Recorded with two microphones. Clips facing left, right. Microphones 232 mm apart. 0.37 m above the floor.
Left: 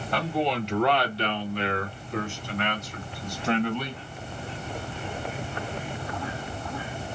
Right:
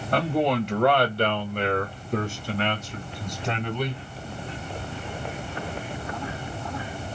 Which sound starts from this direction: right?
A man speaking, at 0.1 s.